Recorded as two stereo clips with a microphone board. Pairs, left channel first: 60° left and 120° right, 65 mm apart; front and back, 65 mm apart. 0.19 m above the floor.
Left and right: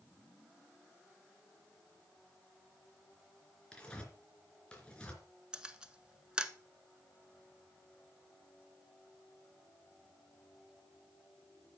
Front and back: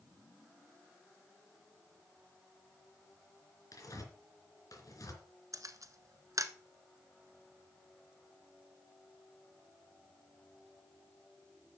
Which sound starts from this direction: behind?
A camera shutter, at 5.5 s.